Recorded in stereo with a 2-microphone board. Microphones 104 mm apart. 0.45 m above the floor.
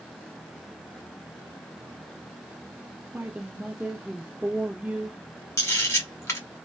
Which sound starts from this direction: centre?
A woman speaking, at 3.1 s.